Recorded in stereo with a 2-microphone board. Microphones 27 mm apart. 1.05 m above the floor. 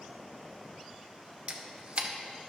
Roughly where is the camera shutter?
Right.